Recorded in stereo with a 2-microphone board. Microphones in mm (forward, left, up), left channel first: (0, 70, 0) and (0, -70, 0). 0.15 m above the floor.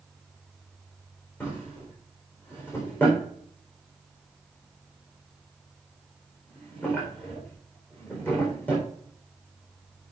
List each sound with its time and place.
1.4 s a drawer: 15° left (ahead or behind), 4 m